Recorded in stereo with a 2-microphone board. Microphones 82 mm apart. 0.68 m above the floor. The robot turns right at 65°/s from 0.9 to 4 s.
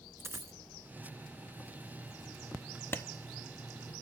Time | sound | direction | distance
0.2 | a dropped coin | 30° right (ahead or behind) | 1.2 m
2.9 | a clap | 25° left (ahead or behind) | 0.7 m